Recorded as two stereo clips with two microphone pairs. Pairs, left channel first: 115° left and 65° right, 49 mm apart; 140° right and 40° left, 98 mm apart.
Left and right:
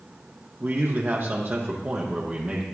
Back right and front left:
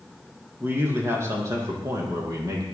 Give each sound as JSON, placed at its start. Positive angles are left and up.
{"t": 0.6, "sound": "a man speaking", "azimuth_deg": -25, "distance_m": 5.5}